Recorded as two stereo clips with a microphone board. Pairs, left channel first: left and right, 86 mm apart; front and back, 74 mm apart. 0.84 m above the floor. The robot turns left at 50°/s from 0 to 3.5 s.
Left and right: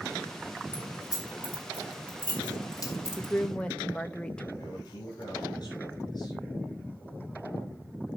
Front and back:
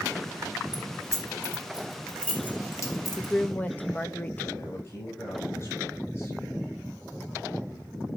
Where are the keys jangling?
150° left, 2.5 m; by 3.3 s 20° left, 2.5 m.